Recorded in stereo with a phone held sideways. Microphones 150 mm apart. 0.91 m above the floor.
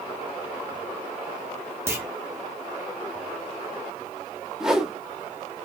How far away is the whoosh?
About 0.5 m.